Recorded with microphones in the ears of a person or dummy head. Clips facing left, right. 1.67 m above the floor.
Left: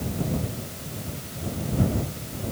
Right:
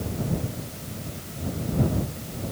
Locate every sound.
Only background noise.